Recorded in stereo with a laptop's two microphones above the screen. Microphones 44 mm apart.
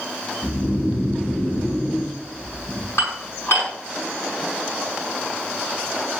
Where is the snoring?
65° left (ahead or behind), 7 m.